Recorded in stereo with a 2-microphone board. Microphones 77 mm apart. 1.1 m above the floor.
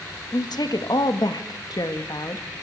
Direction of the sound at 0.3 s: 65° left (ahead or behind).